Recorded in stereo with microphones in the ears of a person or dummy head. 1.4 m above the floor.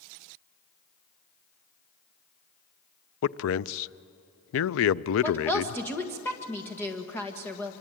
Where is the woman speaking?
10° left (ahead or behind), 1.7 m.